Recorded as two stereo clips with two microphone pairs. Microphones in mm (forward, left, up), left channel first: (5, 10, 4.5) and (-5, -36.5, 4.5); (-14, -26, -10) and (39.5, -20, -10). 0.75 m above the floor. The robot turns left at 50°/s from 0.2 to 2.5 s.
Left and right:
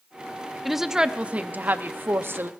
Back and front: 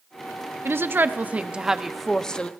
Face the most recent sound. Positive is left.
turn(degrees=-110)